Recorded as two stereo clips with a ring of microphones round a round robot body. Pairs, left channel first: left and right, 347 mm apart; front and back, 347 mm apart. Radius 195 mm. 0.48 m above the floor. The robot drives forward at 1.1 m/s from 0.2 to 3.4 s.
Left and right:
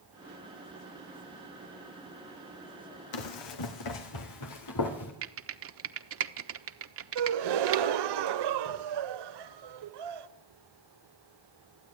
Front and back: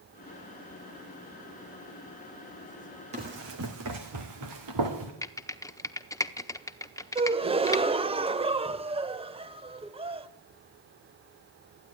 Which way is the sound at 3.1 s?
105° left.